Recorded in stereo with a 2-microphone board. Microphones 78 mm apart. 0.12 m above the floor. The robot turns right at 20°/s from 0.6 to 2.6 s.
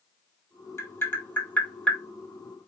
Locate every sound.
0.8 s tapping: 35° left (ahead or behind), 0.6 m; by 2.0 s 10° left (ahead or behind), 0.6 m